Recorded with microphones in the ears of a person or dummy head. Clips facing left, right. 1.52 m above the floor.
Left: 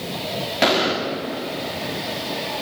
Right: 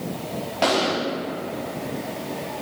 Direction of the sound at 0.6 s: 25° left (ahead or behind).